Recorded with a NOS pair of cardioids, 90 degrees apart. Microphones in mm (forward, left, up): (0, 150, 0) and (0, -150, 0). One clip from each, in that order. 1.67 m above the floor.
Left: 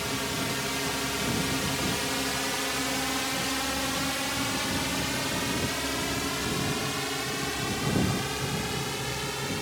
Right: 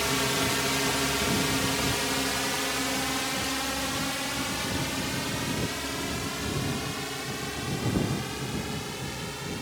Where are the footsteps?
I don't hear footsteps.